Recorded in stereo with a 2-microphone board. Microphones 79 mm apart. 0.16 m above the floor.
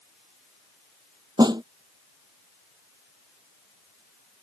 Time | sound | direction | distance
1.4 | a snare drum | 60° right (ahead or behind) | ?